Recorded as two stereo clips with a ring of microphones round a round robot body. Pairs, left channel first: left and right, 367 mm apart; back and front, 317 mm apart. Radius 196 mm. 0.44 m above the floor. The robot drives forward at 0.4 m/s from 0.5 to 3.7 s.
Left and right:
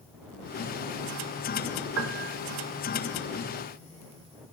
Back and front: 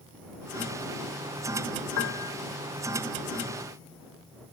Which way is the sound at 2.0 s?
145° right.